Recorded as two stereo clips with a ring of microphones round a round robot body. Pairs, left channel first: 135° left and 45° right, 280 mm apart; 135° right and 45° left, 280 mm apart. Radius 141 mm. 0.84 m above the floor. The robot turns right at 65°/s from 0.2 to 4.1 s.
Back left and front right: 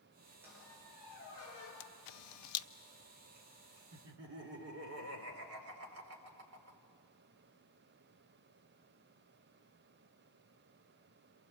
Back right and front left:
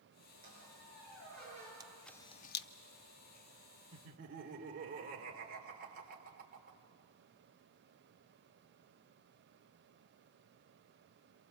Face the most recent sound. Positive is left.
turn(degrees=-10)